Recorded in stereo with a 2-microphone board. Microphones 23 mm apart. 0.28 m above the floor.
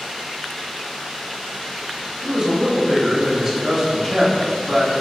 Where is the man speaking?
25° right (ahead or behind), 1.1 m; by 4.9 s 15° left (ahead or behind), 1.6 m.